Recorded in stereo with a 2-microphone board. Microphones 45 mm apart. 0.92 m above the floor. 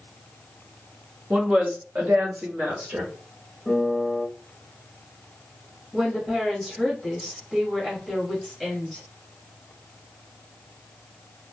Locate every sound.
1.3 s a woman speaking: 25° right (ahead or behind), 0.9 m; by 3.1 s 55° right (ahead or behind), 1.5 m
3.6 s a piano: 20° right (ahead or behind), 1.1 m
5.9 s a woman speaking: 15° right (ahead or behind), 1.3 m